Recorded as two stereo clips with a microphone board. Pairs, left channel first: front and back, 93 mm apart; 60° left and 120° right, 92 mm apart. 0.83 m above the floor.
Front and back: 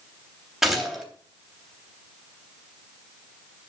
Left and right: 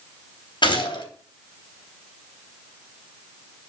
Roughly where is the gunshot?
Left.